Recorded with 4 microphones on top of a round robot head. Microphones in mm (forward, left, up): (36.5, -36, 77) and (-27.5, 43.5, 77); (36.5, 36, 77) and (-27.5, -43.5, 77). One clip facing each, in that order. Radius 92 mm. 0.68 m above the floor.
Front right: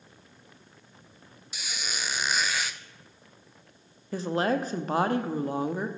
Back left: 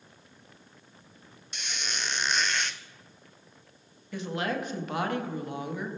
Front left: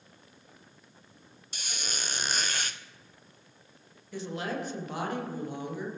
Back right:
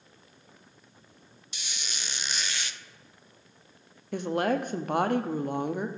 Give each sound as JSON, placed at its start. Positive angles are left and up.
{"t": 1.5, "sound": "a squeak", "azimuth_deg": 30, "distance_m": 0.6}
{"t": 4.1, "sound": "a woman speaking", "azimuth_deg": -105, "distance_m": 1.0}